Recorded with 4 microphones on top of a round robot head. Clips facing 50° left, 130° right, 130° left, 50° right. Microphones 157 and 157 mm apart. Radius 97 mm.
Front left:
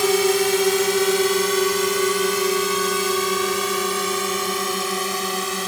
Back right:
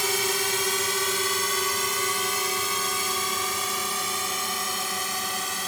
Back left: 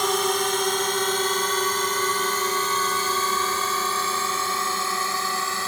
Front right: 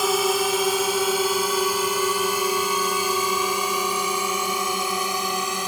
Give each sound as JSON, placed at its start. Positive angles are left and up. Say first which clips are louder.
{"t": 0.0, "sound": "a drone", "louder": "front left 11 dB, front right 2 dB", "azimuth_deg": 35}